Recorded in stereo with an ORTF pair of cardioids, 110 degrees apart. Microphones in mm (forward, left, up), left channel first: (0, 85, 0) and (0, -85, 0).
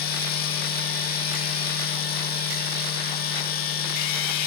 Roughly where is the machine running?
Ahead left.